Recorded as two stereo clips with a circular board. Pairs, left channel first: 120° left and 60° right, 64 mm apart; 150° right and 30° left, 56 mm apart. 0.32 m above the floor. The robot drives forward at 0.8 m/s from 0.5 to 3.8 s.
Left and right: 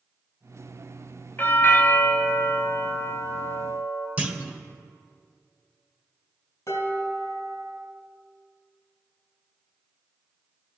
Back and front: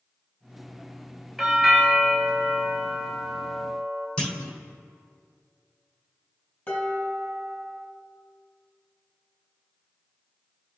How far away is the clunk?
About 1.3 m.